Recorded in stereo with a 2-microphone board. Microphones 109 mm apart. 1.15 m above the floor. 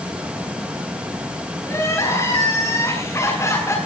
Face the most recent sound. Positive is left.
turn(degrees=25)  # may be behind; listen again after turning